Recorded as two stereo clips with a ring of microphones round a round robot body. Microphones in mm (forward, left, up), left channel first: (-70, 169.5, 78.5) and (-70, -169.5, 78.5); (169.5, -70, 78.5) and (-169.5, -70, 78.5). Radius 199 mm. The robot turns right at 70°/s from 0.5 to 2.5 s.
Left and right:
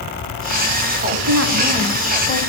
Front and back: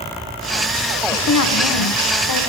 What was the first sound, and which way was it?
A woman speaking, 60° right.